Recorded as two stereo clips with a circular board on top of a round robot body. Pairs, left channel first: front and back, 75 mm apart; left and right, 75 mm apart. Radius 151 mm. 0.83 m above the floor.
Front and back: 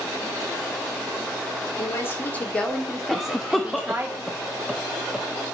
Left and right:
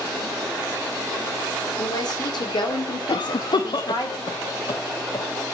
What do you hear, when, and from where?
1.8 s a woman speaking: 55° left, 3.5 m; by 4.1 s 120° left, 3.5 m
3.1 s a cough: 90° left, 1.3 m